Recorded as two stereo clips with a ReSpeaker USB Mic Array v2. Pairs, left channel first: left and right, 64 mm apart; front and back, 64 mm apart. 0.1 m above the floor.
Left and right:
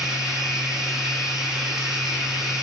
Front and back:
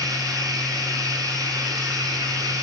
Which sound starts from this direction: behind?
Running water, at 0.0 s.